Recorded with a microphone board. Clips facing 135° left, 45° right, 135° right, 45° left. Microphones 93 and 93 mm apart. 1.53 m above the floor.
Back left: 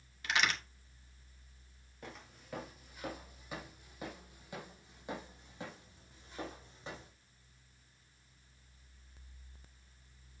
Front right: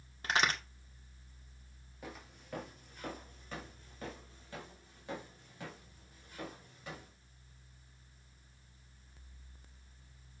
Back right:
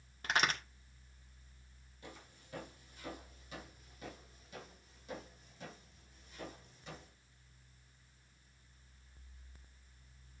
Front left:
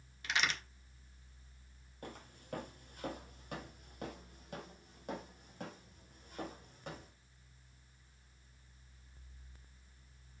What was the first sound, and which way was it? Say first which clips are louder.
A crack: front right 2 dB, back right 3 dB; 95° right.